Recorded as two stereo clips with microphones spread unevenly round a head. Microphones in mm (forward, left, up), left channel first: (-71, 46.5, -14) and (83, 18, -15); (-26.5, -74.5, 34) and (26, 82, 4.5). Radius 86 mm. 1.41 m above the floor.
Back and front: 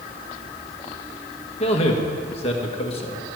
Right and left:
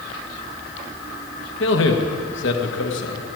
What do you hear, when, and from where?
1.6 s a man speaking: 130° right, 1.8 m